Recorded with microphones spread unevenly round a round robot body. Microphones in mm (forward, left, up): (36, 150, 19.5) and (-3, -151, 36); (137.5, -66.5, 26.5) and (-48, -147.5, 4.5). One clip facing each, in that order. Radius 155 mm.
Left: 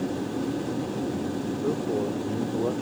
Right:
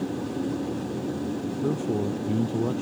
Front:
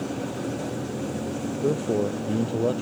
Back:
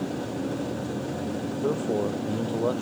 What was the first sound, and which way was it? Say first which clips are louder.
A man speaking: right 1 dB, front 2 dB; 45° right.